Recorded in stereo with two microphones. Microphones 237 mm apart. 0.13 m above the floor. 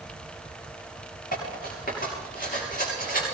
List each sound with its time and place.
1.3 s cutlery clinking: 40° left (ahead or behind), 8 m